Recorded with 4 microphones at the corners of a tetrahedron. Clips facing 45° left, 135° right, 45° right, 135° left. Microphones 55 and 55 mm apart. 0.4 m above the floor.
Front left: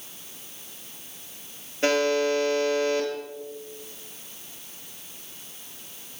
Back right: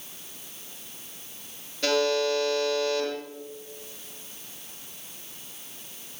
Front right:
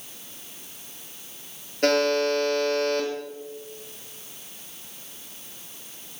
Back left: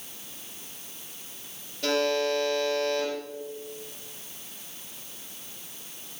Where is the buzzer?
15° right, 7 m.